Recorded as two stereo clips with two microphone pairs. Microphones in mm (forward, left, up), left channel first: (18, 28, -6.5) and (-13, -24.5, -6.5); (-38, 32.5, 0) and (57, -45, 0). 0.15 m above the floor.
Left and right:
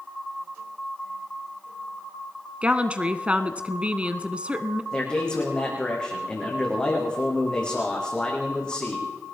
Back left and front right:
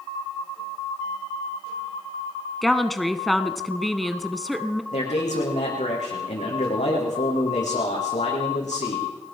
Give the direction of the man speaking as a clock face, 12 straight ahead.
8 o'clock.